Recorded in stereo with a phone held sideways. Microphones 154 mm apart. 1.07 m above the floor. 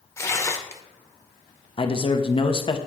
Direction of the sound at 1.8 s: 35° left (ahead or behind).